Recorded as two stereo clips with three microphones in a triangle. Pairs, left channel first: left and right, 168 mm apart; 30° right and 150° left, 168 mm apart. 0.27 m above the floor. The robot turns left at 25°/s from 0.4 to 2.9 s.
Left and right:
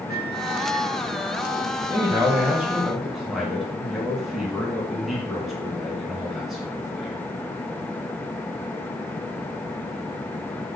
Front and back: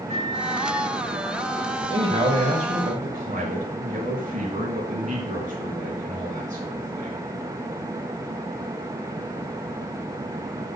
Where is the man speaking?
155° right, 3.5 m; by 7.2 s straight behind, 3.5 m.